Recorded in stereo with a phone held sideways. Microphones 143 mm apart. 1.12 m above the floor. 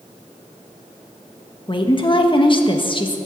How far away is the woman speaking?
About 1.3 m.